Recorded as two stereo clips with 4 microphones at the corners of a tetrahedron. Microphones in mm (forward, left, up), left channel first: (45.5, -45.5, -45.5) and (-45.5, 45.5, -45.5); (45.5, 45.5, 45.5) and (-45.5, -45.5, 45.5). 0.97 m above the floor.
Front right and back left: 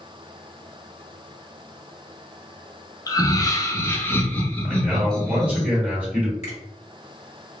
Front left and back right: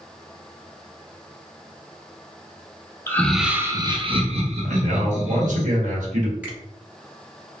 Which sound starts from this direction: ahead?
Laughter, at 3.1 s.